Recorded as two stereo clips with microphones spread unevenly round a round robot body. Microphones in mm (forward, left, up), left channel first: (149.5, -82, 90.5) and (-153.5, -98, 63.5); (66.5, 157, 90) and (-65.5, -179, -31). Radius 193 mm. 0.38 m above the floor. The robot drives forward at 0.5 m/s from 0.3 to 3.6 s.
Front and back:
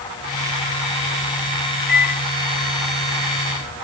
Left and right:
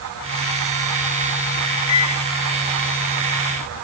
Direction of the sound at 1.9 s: 65° left.